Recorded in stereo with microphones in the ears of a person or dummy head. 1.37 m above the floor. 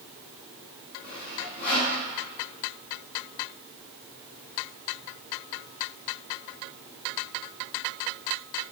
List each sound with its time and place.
1.0 s sawing: 55° left (ahead or behind), 3 m